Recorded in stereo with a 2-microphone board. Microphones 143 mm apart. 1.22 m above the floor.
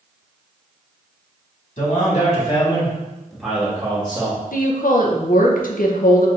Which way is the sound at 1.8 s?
65° left (ahead or behind).